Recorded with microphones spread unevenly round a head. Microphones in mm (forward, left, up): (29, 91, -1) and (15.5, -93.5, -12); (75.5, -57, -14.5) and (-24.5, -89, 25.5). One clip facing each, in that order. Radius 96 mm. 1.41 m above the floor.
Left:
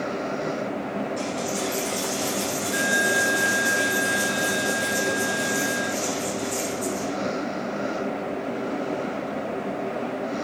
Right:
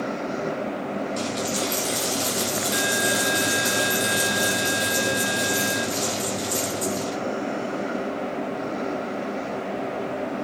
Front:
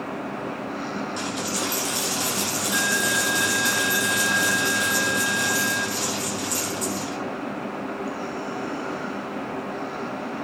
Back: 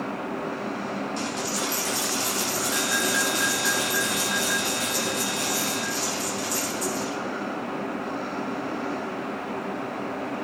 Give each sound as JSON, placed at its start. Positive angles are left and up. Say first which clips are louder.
{"t": 1.2, "sound": "a dropped coin", "louder": "right 1 dB, front 1 dB", "azimuth_deg": -60, "distance_m": 3.5}